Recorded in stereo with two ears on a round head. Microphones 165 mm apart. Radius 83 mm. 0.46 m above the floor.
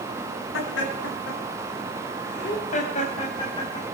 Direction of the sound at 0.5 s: 75° left (ahead or behind).